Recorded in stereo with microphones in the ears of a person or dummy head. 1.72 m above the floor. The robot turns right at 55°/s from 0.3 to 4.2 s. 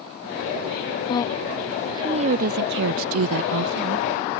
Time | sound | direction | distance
1.1 | a woman speaking | 150° left | ?